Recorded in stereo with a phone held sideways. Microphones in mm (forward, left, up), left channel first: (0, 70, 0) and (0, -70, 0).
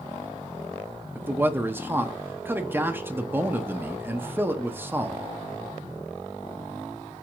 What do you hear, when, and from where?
1.1 s a man speaking: 15° right (ahead or behind), 0.5 m